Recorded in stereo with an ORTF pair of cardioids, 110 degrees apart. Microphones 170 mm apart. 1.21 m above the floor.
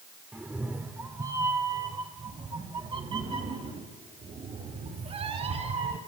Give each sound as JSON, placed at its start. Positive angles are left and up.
{"t": 0.3, "sound": "a cat meowing", "azimuth_deg": -10, "distance_m": 2.0}